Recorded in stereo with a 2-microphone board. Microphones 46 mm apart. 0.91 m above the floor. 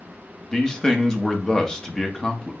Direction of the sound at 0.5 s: 15° left (ahead or behind).